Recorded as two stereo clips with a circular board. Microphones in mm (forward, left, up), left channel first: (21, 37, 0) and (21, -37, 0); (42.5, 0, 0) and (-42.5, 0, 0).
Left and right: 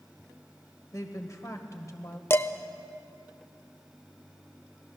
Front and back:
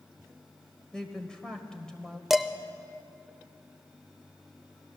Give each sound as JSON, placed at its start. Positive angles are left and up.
{"t": 0.9, "sound": "a woman speaking", "azimuth_deg": 80, "distance_m": 1.3}
{"t": 2.3, "sound": "dishes clattering", "azimuth_deg": 95, "distance_m": 0.5}